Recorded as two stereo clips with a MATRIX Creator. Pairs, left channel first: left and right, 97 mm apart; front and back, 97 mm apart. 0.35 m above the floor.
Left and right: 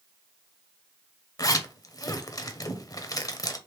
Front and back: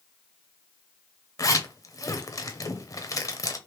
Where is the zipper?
45° left, 0.6 m.